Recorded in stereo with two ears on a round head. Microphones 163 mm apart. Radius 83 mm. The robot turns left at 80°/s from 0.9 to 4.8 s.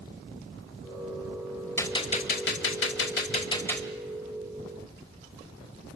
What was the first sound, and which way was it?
A gunshot, 165° left.